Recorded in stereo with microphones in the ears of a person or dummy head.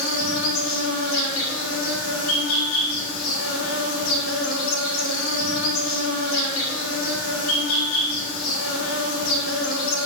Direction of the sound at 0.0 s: 75° left (ahead or behind).